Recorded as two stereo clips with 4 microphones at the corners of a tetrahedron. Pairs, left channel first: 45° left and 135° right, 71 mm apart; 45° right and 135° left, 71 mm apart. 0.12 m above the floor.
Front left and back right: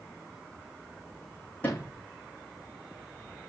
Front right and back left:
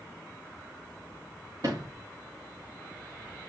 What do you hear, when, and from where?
1.6 s a sliding door: 110° left, 4.5 m